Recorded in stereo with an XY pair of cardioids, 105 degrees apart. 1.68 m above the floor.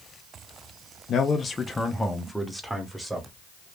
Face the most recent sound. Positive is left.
turn(degrees=-15)